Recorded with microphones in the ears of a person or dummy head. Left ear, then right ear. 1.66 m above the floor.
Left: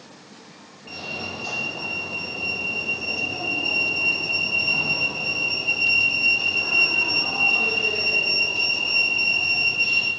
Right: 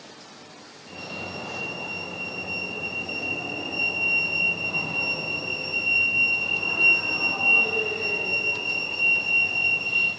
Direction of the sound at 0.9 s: 55° left (ahead or behind).